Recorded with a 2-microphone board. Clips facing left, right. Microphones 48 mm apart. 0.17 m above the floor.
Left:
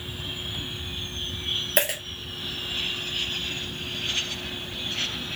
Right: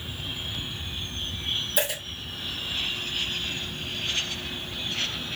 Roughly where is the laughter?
No laughter in this recording.